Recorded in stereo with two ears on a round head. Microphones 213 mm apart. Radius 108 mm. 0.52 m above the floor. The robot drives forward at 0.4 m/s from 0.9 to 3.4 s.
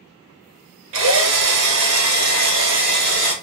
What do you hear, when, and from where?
0.9 s a drill: 60° right (ahead or behind), 1.0 m; by 3.3 s 35° right (ahead or behind), 1.5 m